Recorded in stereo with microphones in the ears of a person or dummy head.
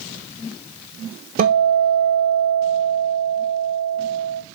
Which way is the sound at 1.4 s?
40° right (ahead or behind).